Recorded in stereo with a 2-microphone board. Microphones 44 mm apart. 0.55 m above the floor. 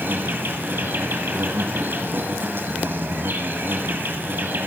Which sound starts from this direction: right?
An insect, at 0.0 s.